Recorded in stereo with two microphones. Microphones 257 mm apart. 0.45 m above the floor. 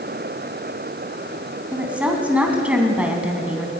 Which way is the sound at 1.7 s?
5° right (ahead or behind).